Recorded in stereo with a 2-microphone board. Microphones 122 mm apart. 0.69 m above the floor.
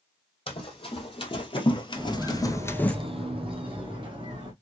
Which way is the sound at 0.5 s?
45° left (ahead or behind).